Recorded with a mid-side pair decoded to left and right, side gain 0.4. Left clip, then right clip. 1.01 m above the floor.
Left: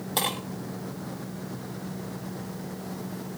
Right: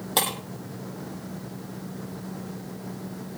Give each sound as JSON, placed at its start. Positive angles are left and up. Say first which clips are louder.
{"t": 0.2, "sound": "breaking glass", "louder": "right 2 dB", "azimuth_deg": -40, "distance_m": 5.5}